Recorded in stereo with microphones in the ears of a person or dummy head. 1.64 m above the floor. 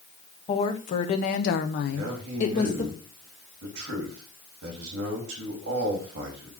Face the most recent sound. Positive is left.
turn(degrees=-65)  # may be behind; listen again after turning